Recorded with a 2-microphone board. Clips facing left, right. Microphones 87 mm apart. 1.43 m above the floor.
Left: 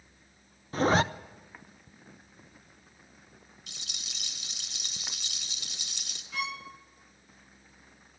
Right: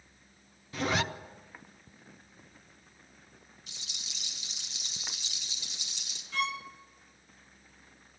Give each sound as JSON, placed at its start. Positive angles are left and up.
{"t": 0.7, "sound": "a zipper", "side_deg": 35, "distance_m": 0.6}
{"t": 3.7, "sound": "a rattle", "side_deg": 70, "distance_m": 2.5}
{"t": 6.3, "sound": "a violin", "side_deg": 5, "distance_m": 1.7}